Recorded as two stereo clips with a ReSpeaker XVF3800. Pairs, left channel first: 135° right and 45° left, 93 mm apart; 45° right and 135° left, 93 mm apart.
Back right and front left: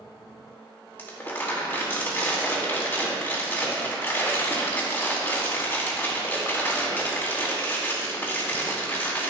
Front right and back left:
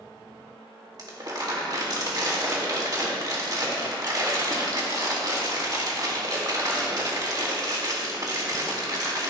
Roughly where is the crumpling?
Behind.